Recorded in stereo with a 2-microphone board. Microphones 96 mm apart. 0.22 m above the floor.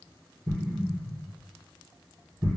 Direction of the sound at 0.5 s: 10° right (ahead or behind).